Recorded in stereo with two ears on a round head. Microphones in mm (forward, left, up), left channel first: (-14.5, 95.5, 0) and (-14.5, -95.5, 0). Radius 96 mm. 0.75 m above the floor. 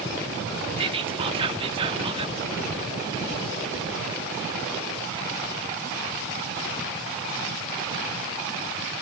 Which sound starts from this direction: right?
Whispering, at 0.8 s.